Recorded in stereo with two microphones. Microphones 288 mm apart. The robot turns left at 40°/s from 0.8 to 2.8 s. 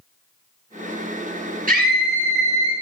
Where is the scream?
35° right, 2.5 m; by 2.7 s 75° right, 2.5 m.